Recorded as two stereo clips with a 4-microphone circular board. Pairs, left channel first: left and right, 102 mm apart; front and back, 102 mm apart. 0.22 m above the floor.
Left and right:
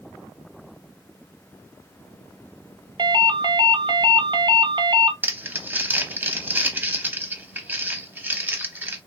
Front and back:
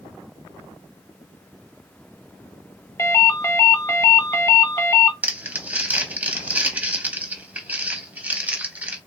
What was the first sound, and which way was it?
A ringtone, 55° right.